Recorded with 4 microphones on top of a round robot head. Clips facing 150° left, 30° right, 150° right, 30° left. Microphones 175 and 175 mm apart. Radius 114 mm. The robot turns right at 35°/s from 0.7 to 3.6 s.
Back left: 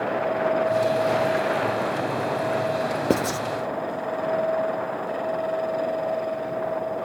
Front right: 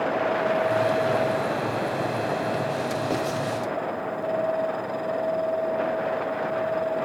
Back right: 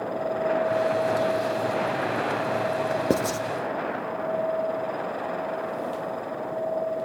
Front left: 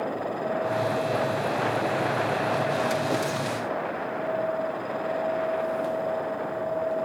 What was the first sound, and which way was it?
Writing, straight behind.